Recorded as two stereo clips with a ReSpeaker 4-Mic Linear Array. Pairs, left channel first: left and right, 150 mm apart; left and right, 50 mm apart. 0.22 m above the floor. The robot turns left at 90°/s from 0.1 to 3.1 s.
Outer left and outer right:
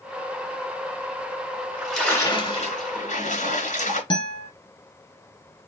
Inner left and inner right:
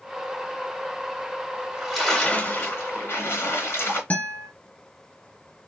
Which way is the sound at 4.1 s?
35° left (ahead or behind).